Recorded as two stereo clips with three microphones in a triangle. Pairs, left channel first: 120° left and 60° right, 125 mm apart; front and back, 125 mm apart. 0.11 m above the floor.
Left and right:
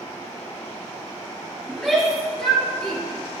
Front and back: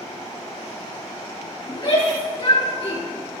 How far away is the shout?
About 2.5 m.